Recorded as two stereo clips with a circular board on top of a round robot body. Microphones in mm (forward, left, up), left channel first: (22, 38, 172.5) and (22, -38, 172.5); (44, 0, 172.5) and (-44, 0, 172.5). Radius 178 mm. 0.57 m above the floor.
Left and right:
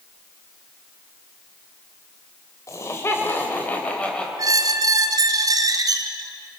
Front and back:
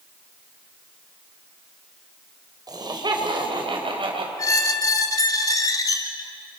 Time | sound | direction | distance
2.7 | laughter | 140° left | 4 m
4.4 | a squeak | 50° right | 1.0 m